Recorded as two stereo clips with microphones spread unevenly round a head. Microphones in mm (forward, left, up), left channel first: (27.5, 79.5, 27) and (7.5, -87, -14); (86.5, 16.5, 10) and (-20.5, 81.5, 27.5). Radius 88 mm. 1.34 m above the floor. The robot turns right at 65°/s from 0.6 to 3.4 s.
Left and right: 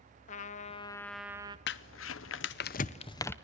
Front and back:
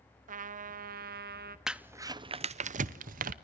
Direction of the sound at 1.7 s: 60° left.